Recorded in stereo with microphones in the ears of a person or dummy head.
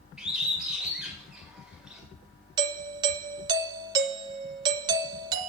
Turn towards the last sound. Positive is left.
turn(degrees=-25)  # may be behind; listen again after turning